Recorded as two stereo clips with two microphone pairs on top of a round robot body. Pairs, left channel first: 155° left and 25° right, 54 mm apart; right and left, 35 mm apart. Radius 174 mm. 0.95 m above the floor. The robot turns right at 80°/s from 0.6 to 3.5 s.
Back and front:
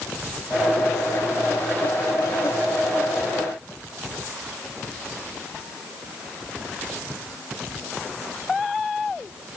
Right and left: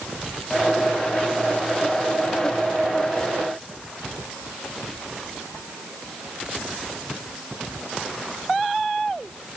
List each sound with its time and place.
Only background noise.